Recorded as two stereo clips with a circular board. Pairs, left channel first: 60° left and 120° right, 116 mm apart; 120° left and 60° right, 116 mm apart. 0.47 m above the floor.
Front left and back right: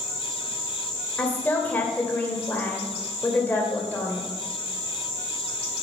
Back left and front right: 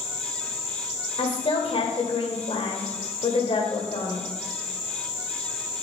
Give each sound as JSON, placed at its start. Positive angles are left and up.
{"t": 1.2, "sound": "a woman speaking", "azimuth_deg": 130, "distance_m": 1.8}